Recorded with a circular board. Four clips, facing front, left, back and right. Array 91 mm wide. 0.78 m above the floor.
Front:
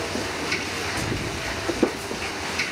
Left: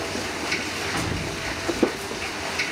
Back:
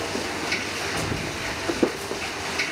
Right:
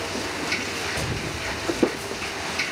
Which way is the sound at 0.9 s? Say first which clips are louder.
Left 1 dB, even; 110° left.